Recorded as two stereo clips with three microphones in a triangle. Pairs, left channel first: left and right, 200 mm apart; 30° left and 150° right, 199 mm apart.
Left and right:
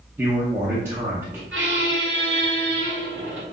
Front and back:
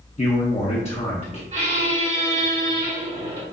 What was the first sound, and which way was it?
A man speaking, 15° right.